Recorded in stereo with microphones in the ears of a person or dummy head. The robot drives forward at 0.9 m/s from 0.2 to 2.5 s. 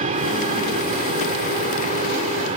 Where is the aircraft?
35° right (ahead or behind).